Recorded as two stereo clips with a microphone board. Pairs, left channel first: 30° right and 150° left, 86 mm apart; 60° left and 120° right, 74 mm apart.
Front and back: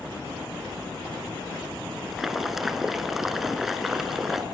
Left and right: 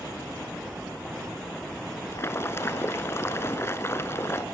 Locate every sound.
2.1 s boiling: 65° left, 1.3 m